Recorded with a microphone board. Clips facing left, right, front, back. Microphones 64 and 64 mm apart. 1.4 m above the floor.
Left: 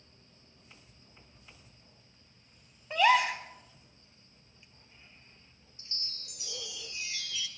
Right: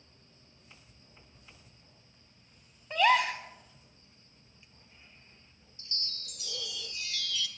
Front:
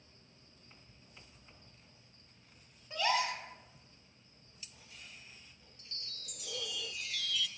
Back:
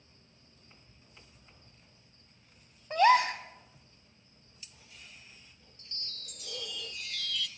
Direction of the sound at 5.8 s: 85° left.